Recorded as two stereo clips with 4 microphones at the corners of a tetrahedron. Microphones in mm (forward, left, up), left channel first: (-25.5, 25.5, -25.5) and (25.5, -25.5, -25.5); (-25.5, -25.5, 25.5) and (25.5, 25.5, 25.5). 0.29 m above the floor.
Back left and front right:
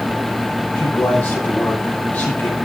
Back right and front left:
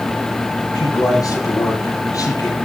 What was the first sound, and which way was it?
A man speaking, 160° right.